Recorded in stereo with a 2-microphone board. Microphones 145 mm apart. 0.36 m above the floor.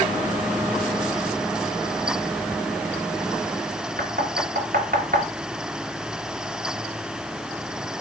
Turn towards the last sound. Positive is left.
turn(degrees=-70)  # may be behind; listen again after turning